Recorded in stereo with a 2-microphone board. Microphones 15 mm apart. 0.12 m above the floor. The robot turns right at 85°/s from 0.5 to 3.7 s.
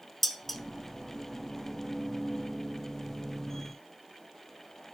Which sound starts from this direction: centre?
Dishes clattering, at 0.2 s.